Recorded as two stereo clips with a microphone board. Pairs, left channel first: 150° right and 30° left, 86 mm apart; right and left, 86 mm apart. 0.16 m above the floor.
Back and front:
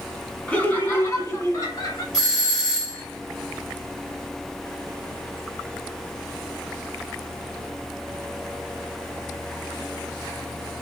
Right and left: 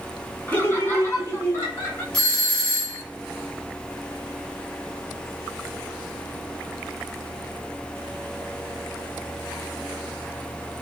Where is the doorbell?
30° right, 1.6 m.